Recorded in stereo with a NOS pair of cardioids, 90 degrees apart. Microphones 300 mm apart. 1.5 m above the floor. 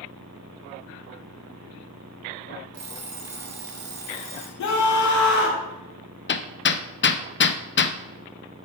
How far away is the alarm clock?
About 2 m.